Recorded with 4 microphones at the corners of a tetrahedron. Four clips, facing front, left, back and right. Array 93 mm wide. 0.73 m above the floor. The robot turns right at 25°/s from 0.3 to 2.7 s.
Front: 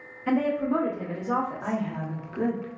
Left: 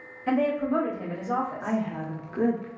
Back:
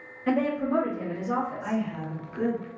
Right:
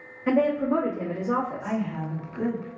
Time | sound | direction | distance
0.3 | a woman speaking | 110° right | 1.0 m
1.6 | a woman speaking | 50° left | 0.6 m